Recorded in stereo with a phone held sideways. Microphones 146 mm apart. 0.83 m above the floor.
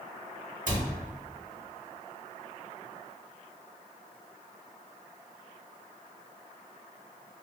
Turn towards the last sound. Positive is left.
turn(degrees=-65)  # may be behind; listen again after turning